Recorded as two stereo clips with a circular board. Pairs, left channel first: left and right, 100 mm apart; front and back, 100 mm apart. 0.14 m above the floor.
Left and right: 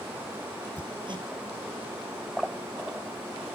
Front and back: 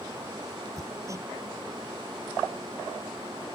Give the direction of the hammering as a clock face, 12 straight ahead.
4 o'clock.